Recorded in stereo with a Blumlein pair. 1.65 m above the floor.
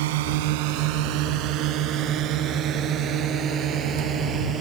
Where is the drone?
50° right; by 4.6 s 25° right.